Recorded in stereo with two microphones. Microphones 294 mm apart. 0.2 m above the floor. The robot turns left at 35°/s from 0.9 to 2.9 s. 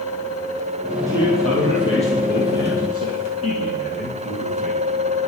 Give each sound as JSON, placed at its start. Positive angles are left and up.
{"t": 1.1, "sound": "a man speaking", "azimuth_deg": -170, "distance_m": 5.5}